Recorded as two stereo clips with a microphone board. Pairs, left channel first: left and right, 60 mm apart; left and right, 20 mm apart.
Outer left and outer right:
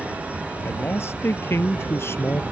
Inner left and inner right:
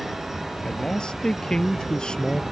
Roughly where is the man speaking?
Left.